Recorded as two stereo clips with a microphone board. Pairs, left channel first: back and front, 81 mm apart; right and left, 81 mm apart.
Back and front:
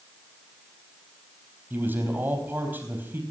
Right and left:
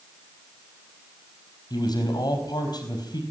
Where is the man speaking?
65° right, 4 m.